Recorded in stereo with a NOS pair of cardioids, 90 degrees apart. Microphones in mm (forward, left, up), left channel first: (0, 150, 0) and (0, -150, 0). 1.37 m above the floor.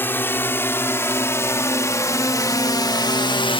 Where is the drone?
5° left; by 3.6 s 15° left.